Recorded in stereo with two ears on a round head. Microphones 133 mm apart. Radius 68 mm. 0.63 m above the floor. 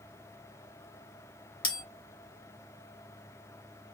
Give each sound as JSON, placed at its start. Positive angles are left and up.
{"t": 1.6, "sound": "a bell", "side_deg": 35, "distance_m": 1.2}